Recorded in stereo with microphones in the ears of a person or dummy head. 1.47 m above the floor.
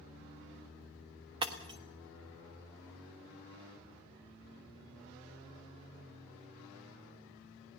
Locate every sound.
1.4 s breaking glass: 25° right (ahead or behind), 1.2 m